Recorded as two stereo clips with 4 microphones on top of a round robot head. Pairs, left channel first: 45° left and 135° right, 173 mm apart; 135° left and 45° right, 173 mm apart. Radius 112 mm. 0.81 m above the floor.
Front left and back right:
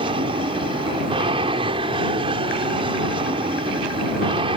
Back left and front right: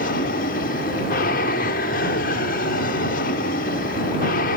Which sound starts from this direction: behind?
An aircraft, at 0.0 s.